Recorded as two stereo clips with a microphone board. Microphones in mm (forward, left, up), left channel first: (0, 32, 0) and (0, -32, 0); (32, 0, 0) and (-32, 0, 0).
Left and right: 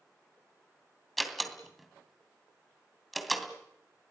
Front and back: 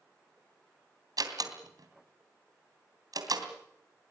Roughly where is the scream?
No scream in this recording.